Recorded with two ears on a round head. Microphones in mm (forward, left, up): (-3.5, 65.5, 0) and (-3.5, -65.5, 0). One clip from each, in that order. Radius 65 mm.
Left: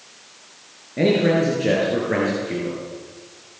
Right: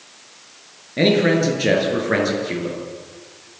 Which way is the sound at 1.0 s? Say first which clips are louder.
Right 2 dB; 80° right.